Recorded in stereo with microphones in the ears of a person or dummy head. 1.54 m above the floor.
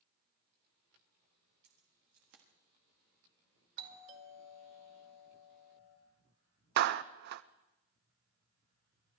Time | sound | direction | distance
1.6 | keys jangling | 50° right (ahead or behind) | 1.4 m
3.8 | a doorbell | 50° right (ahead or behind) | 2.5 m
6.8 | a clap | 55° right (ahead or behind) | 0.5 m